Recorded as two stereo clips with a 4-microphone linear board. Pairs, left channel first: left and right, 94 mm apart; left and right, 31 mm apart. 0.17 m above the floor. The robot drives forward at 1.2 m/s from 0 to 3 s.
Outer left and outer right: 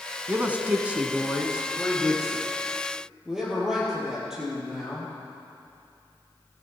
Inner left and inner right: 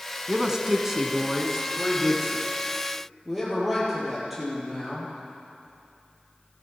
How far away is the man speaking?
About 1.1 m.